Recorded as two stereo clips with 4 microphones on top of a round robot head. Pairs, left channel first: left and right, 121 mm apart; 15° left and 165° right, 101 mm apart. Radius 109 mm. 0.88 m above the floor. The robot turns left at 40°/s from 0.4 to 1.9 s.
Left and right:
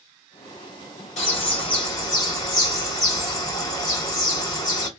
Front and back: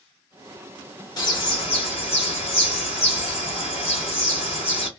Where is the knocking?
I don't hear knocking.